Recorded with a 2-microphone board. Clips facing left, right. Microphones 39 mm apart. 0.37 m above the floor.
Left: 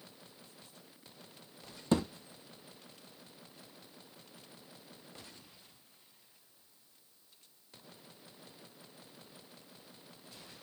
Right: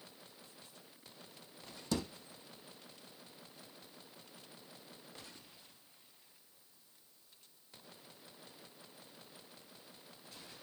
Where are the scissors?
I don't hear scissors.